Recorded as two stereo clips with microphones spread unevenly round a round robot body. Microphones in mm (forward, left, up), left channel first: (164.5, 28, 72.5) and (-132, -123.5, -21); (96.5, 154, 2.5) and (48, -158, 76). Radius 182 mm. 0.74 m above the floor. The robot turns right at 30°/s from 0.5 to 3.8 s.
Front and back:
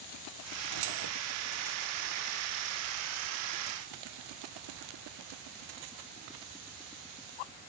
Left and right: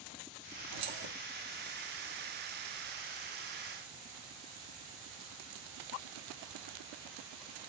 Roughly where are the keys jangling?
Behind right.